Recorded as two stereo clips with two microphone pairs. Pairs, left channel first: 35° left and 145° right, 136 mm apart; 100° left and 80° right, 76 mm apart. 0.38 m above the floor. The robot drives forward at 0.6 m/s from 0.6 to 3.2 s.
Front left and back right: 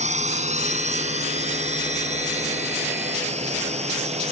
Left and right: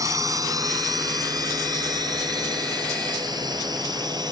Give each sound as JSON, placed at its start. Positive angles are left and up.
{"t": 0.0, "sound": "a drone", "azimuth_deg": -120}